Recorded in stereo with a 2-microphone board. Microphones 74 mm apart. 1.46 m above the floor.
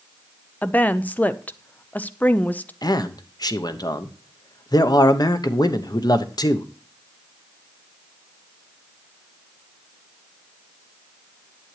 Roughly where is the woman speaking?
Left.